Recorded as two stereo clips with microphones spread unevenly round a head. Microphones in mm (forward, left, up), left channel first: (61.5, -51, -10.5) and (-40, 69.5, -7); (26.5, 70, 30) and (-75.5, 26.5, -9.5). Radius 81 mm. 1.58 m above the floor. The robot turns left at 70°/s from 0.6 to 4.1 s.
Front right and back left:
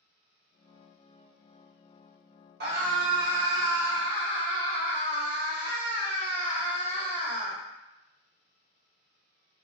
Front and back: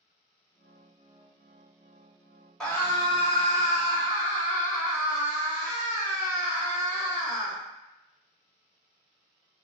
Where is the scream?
110° left, 1.2 m; by 7.6 s 5° left, 1.2 m.